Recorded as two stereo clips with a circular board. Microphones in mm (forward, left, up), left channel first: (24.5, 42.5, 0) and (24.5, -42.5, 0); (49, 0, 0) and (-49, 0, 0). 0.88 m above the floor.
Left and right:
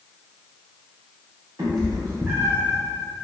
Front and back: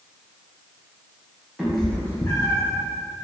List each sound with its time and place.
1.6 s a cat meowing: 95° right, 0.6 m; by 2.8 s 10° right, 0.6 m